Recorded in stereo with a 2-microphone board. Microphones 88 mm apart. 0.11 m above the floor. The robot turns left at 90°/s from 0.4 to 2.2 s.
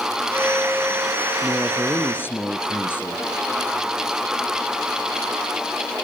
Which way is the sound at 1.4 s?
145° right.